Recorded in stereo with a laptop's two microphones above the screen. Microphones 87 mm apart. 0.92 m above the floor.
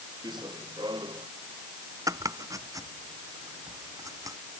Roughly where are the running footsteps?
Right.